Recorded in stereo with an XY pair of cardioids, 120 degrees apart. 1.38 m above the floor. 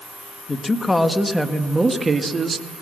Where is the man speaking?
25° left, 1.9 m; by 2.7 s 35° right, 2.5 m.